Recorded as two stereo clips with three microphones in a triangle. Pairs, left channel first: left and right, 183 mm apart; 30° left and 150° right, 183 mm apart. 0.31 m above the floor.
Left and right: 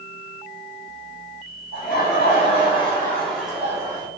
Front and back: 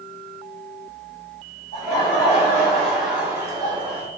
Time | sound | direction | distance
1.7 | laughter | 85° left | 1.8 m